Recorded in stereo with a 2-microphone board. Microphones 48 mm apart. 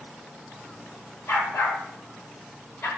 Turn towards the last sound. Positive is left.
turn(degrees=70)  # may be behind; listen again after turning